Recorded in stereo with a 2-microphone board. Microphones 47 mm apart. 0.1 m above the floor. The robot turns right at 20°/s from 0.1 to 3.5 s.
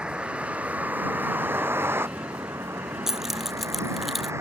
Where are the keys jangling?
10° right (ahead or behind); by 4.3 s centre (ahead or behind).